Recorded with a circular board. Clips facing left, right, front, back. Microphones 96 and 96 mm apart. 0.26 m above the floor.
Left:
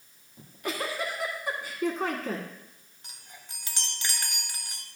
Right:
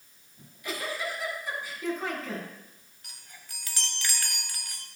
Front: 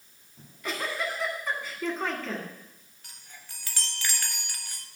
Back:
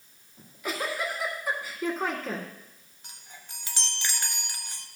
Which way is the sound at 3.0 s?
130° left.